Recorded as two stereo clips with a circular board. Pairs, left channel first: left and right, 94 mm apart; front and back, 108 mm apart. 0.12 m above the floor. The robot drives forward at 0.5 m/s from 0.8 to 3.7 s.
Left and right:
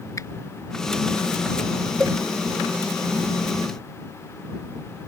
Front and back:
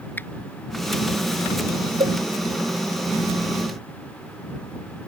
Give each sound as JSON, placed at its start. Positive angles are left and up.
{"t": 0.2, "sound": "a finger snap", "azimuth_deg": 60}
{"t": 2.0, "sound": "a cowbell", "azimuth_deg": -165}